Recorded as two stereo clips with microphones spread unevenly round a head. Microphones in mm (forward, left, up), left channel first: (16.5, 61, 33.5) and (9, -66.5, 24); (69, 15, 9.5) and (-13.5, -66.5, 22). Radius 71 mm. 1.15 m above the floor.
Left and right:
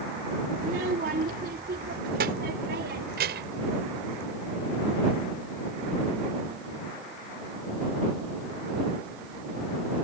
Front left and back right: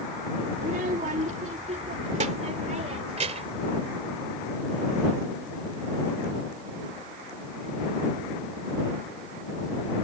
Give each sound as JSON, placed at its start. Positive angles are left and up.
{"t": 0.6, "sound": "a child speaking", "azimuth_deg": -120}